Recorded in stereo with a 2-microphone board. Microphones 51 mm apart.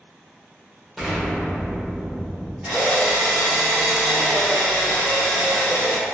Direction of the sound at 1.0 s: 5° right (ahead or behind).